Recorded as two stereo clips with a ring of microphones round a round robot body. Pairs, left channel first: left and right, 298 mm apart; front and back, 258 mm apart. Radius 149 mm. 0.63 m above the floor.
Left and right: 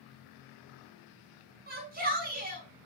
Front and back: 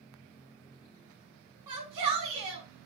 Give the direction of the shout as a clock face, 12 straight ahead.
5 o'clock.